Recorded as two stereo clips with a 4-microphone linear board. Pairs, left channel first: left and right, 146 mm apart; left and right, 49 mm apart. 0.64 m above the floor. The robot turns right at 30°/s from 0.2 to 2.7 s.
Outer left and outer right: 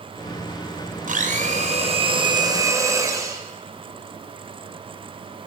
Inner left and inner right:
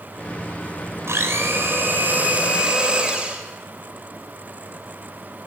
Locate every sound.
1.1 s a blender: 70° right, 3.5 m; by 3.4 s 20° right, 3.5 m